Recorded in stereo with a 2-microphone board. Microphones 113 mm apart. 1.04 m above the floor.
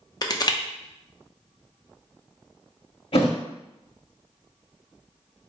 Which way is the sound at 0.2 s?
35° left (ahead or behind).